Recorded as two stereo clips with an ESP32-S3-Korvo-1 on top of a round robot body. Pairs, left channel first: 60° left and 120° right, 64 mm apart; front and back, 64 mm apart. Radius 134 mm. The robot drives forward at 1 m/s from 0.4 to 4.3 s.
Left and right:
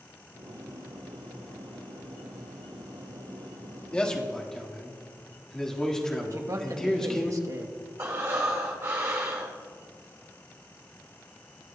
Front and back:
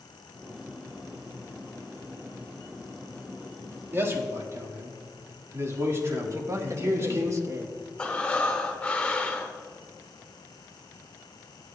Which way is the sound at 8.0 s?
75° right.